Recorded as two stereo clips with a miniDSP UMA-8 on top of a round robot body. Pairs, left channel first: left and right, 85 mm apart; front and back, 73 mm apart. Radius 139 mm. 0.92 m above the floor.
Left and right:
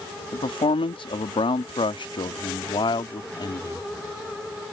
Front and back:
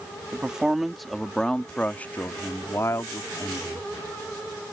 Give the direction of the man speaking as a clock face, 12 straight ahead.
9 o'clock.